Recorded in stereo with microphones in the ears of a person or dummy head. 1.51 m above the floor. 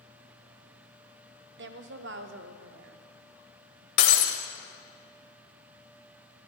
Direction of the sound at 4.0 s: 30° left (ahead or behind).